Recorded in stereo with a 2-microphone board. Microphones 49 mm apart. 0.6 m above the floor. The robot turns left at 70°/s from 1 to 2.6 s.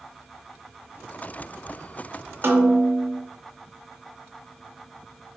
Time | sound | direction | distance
2.4 | a snare drum | 45° right (ahead or behind) | 0.5 m